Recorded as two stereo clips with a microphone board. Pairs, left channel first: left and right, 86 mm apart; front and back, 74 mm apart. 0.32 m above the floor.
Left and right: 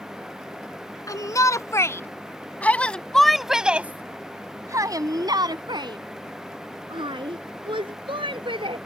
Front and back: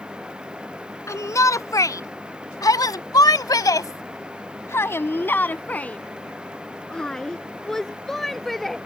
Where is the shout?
45° left; by 8.8 s 90° right.